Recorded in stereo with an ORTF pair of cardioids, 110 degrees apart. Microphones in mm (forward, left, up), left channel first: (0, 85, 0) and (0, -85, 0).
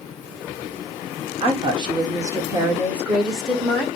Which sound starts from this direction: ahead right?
A woman speaking, at 1.4 s.